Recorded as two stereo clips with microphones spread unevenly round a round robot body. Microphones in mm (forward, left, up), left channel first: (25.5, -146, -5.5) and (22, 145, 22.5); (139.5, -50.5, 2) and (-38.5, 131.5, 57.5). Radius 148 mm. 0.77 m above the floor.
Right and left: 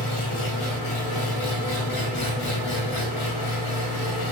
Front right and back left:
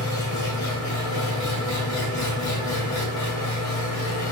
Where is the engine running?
75° right, 2.5 m.